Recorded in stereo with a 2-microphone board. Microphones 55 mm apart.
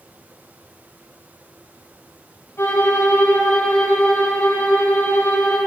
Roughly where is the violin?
Left.